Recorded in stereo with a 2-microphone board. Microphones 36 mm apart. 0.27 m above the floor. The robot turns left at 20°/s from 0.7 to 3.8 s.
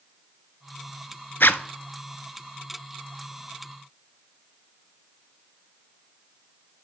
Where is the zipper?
80° left, 0.5 m; by 1.6 s 75° left (ahead or behind), 0.5 m.